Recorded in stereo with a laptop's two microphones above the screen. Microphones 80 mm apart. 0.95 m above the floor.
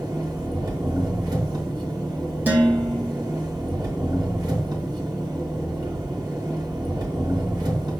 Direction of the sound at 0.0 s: 65° right (ahead or behind).